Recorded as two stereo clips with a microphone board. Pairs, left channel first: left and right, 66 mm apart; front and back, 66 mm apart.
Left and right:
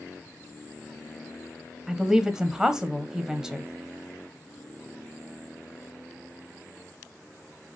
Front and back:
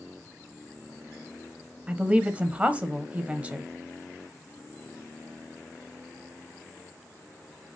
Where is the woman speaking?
150° right, 1.0 m.